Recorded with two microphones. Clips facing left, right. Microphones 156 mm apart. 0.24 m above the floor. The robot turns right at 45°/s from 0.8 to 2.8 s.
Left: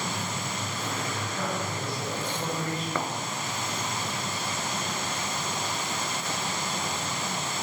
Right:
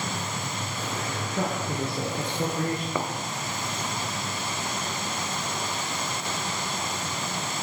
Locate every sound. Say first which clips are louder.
1.4 s a man speaking: right 5 dB; 130° right, 4 m; by 2.9 s 65° right, 4 m
3.0 s a thud: even; 10° right (ahead or behind), 1.1 m